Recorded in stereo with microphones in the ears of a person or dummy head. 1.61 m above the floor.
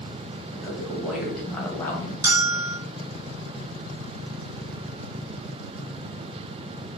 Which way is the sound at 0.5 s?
15° right (ahead or behind).